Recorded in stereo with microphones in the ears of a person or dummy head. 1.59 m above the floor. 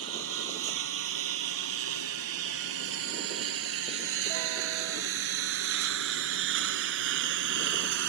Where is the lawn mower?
80° right; by 8.1 s 60° right (ahead or behind).